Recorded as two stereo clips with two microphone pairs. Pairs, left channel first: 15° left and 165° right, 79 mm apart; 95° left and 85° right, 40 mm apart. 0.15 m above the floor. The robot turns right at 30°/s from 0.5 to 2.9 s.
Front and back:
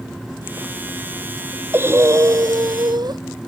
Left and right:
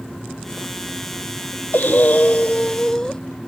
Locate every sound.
1.7 s breathing: 130° left; by 3.2 s 165° left